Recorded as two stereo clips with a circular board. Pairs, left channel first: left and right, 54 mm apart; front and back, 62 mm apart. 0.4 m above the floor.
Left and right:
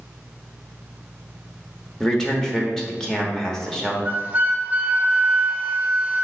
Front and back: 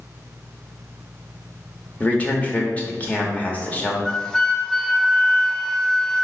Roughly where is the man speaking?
Ahead left.